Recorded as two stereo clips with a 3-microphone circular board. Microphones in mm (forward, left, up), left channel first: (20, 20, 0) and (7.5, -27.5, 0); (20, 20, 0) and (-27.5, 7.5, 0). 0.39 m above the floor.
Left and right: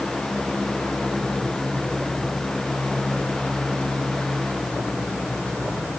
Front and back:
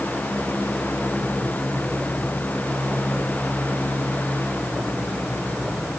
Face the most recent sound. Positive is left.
No sound to turn to.